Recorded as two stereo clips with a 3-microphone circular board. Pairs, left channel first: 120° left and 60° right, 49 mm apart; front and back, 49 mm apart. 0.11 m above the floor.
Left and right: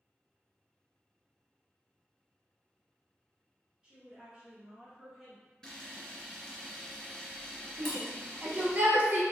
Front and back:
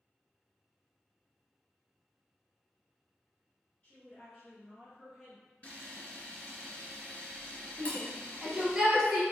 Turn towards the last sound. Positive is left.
turn(degrees=-105)